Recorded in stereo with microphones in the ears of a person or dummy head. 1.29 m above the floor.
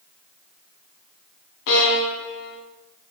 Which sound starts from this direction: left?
A violin, at 1.7 s.